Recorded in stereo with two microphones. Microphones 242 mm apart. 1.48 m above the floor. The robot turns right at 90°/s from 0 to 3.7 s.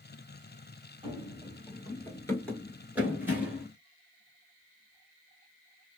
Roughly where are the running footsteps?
Right.